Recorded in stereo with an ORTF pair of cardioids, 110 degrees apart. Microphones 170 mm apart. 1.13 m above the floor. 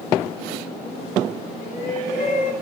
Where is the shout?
45° left, 5 m.